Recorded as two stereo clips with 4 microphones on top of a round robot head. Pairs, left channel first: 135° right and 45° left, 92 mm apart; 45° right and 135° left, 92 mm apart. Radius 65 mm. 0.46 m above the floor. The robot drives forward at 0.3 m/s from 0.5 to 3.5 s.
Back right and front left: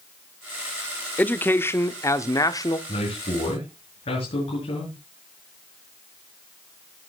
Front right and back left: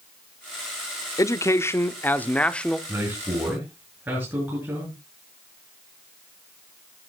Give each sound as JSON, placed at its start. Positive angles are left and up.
{"t": 1.2, "sound": "a man speaking", "azimuth_deg": -70, "distance_m": 0.9}
{"t": 2.9, "sound": "a man speaking", "azimuth_deg": -155, "distance_m": 6.5}